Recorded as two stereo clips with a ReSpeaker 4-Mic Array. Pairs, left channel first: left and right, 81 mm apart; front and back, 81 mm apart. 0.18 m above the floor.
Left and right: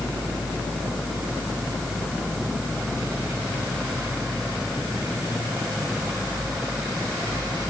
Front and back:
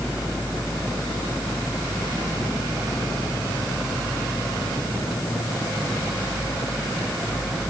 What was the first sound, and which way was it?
Only background noise.